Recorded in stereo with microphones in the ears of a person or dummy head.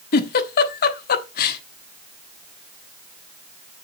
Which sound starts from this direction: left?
A giggle, at 0.1 s.